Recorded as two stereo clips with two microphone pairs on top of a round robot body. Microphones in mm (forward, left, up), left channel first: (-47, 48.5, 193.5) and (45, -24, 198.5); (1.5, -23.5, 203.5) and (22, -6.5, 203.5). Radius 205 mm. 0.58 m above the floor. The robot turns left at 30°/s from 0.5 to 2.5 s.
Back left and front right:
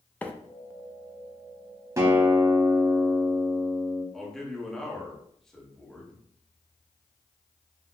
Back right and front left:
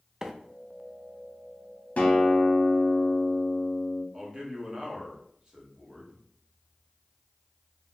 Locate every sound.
0.2 s a microwave: 85° left, 0.7 m
2.0 s a guitar: 105° right, 0.6 m; by 4.0 s 120° right, 0.6 m
4.1 s a man speaking: 65° left, 1.3 m